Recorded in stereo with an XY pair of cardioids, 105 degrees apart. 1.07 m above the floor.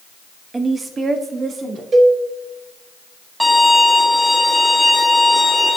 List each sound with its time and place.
0.5 s a woman speaking: 25° right, 1.0 m; by 1.8 s 45° right, 2.5 m
1.9 s a cowbell: 40° right, 1.5 m
3.4 s a violin: 5° right, 2.5 m